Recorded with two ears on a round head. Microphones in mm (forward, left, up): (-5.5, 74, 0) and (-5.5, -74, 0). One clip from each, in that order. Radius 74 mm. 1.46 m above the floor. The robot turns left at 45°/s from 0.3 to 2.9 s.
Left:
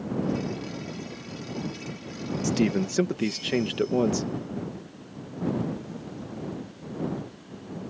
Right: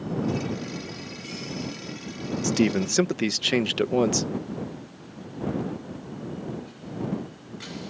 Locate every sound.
2.4 s a man speaking: 10° right (ahead or behind); by 4.2 s 35° right (ahead or behind)